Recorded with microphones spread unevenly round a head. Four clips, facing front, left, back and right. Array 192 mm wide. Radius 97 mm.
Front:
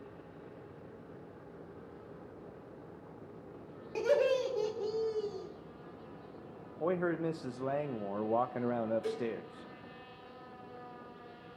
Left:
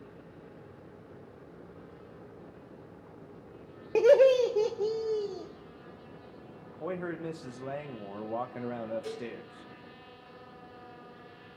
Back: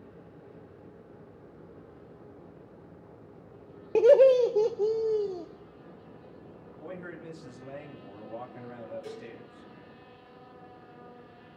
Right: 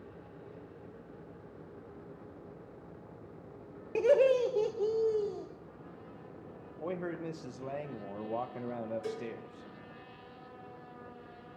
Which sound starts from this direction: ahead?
A man speaking, at 6.8 s.